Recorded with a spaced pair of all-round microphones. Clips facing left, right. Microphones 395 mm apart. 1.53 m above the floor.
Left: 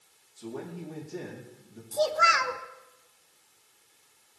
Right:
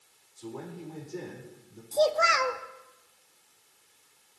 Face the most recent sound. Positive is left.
turn(degrees=25)  # may be behind; listen again after turning